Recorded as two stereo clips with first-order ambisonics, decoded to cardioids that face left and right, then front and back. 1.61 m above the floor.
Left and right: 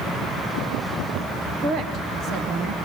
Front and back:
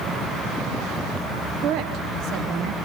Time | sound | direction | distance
1.6 | a woman speaking | 145° right | 1.5 m